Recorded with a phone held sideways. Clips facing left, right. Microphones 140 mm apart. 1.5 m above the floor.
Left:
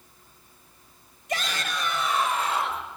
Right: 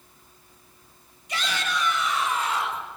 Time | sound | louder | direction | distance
1.3 | a shout | right 1 dB | 55° left (ahead or behind) | 7.5 m